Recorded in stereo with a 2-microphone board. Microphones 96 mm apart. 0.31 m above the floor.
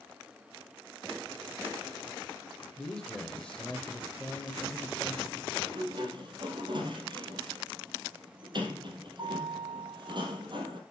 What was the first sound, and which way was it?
A man speaking, 10° left (ahead or behind).